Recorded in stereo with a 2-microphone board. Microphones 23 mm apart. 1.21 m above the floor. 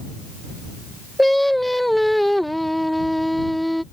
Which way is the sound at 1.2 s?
Centre (ahead or behind).